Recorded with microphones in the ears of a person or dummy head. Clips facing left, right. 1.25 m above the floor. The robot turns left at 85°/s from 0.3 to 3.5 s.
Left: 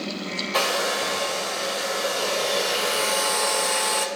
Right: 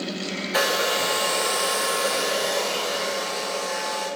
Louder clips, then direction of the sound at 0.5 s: Right 1 dB; 15° right.